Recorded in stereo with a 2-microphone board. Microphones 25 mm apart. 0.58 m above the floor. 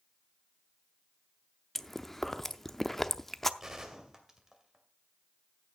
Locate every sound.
1.8 s chewing: 15° left (ahead or behind), 0.6 m
3.6 s a gunshot: 15° right (ahead or behind), 2 m